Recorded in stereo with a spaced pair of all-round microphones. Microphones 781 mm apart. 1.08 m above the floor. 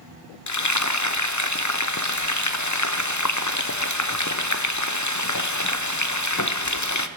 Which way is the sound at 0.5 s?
25° left (ahead or behind).